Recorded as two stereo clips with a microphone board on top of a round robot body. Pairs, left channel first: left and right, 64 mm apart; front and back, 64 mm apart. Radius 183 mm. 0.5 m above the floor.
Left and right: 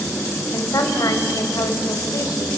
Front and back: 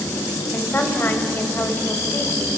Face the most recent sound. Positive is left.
turn(degrees=60)